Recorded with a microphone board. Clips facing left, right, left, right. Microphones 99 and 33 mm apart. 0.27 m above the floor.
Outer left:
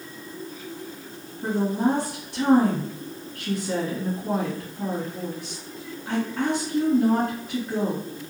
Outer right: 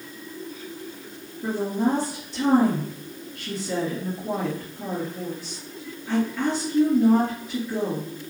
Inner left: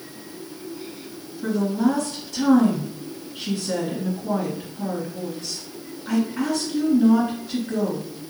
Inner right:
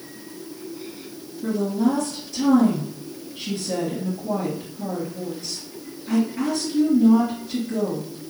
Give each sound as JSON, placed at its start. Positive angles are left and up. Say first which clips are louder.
{"t": 1.4, "sound": "a woman speaking", "louder": "outer left 1 dB, even", "side_deg": 55, "distance_m": 1.9}